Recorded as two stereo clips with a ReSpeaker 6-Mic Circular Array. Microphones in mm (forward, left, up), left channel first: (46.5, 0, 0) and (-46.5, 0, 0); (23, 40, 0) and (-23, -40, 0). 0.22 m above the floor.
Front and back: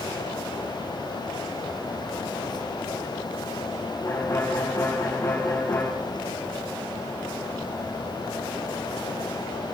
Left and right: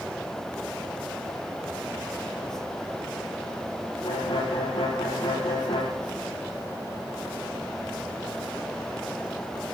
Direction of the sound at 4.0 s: 55° left.